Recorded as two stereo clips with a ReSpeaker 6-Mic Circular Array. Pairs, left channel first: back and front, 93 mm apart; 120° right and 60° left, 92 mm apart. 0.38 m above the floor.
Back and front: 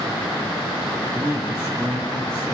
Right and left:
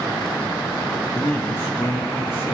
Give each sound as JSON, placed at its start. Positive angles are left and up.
{"t": 1.1, "sound": "a man speaking", "azimuth_deg": -60, "distance_m": 3.0}